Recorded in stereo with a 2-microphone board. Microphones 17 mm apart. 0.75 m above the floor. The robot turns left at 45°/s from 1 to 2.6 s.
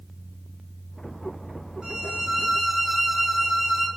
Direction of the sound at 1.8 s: 120° right.